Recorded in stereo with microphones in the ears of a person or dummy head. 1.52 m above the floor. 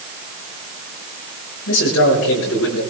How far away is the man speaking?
About 5.5 m.